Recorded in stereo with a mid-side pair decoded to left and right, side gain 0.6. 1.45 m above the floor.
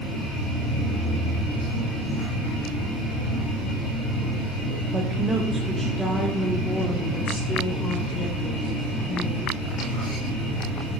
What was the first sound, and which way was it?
A woman speaking, 30° right.